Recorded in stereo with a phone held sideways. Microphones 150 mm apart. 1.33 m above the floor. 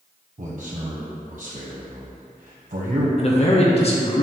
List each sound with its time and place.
0.4 s a man speaking: 65° right (ahead or behind), 0.7 m
3.2 s a man speaking: 40° left (ahead or behind), 0.8 m